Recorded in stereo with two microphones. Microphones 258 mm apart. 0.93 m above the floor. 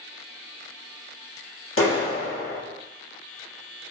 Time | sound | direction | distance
1.8 | a clap | 55° left (ahead or behind) | 1.2 m